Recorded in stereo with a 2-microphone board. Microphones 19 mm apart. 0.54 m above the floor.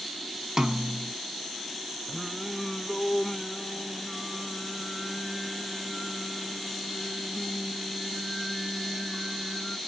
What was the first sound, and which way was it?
A snare drum, 30° right (ahead or behind).